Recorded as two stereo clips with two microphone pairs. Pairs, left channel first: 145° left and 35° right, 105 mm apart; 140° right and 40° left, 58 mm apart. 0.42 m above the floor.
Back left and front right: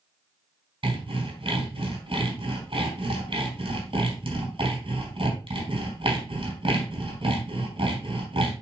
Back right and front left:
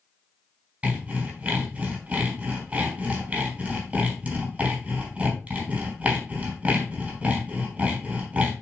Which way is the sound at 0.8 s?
20° right.